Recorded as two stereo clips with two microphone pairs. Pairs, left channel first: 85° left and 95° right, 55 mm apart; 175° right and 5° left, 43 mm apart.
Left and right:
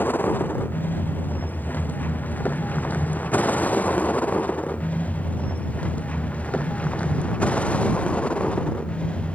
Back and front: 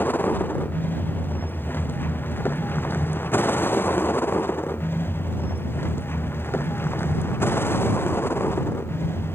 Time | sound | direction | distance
0.0 | a vehicle | 140° left | ?